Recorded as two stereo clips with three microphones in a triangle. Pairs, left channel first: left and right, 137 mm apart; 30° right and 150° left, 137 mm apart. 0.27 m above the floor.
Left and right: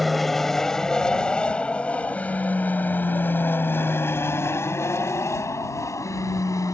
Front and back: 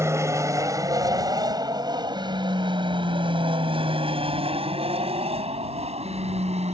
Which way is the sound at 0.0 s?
Straight behind.